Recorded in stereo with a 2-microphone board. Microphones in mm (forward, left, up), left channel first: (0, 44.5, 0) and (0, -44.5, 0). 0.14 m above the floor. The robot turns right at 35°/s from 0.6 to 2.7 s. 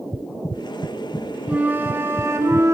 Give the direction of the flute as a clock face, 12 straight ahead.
5 o'clock.